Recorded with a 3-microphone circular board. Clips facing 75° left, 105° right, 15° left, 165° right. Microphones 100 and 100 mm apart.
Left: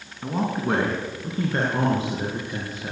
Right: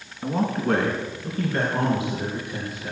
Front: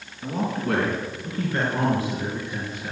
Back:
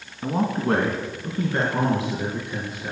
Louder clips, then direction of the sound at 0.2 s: Right 1 dB, back 3 dB; 165° left.